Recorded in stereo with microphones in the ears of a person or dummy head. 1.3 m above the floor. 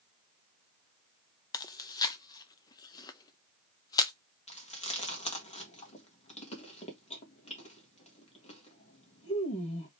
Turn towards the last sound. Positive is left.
turn(degrees=30)  # may be behind; listen again after turning